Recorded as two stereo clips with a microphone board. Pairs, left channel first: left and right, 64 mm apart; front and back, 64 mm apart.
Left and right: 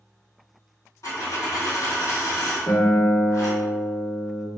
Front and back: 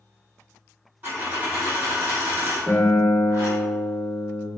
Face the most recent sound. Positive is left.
turn(degrees=85)